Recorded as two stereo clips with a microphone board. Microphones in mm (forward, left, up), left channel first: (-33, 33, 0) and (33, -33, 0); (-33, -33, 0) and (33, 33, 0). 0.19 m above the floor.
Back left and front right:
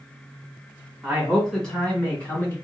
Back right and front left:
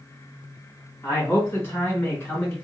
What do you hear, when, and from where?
1.0 s a man speaking: 120° right, 1.6 m; by 2.5 s straight behind, 1.7 m